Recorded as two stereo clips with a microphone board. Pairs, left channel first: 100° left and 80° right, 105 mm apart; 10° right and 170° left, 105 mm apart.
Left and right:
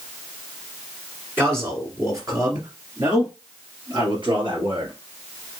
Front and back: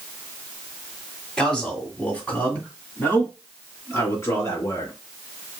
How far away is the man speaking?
About 1.7 m.